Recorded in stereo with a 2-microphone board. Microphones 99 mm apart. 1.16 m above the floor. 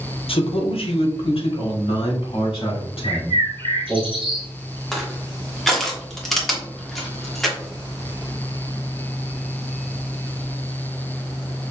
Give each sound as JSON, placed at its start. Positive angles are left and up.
{"t": 0.3, "sound": "a man speaking", "side_deg": 70, "distance_m": 0.9}
{"t": 3.0, "sound": "a bird", "side_deg": -65, "distance_m": 1.3}
{"t": 4.9, "sound": "crushing", "side_deg": 0, "distance_m": 1.1}